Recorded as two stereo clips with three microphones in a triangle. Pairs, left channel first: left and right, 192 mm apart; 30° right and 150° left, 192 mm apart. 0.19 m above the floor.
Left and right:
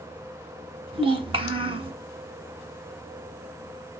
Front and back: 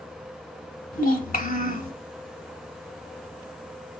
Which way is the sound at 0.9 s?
40° right.